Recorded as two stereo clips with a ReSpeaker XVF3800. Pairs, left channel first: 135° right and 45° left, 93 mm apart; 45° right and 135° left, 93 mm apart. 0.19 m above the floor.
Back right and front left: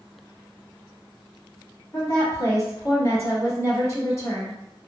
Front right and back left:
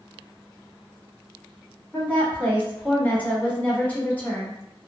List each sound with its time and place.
1.9 s a woman speaking: 105° right, 1.3 m